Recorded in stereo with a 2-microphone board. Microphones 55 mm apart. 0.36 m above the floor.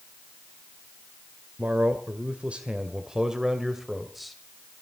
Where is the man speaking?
35° right (ahead or behind), 1.7 m; by 4.4 s centre (ahead or behind), 2 m.